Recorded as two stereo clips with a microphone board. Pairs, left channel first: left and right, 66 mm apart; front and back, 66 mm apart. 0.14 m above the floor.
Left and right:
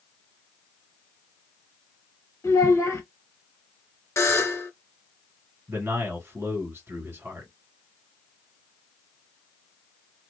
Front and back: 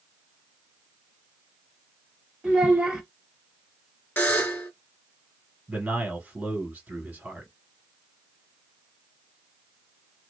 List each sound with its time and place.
2.4 s a child speaking: 110° left, 1.2 m
4.2 s a buzzer: 55° left, 1.1 m
5.7 s a man speaking: 120° right, 1.5 m